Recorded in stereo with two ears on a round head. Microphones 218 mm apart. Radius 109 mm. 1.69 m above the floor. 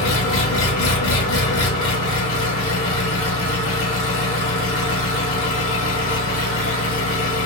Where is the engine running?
55° left (ahead or behind), 1.4 m.